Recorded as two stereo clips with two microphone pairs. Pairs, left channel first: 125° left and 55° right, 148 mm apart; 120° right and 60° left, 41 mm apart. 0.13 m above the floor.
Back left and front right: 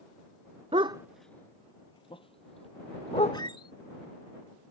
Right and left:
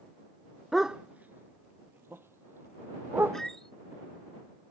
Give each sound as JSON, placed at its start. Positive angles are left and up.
{"t": 0.7, "sound": "a dog barking", "azimuth_deg": -25}
{"t": 3.3, "sound": "a squeak", "azimuth_deg": 165}